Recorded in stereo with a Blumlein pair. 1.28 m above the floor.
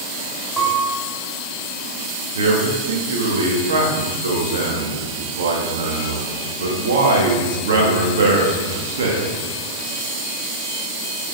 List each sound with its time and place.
0.6 s a piano: 10° right, 2 m
2.4 s a man speaking: 60° right, 2 m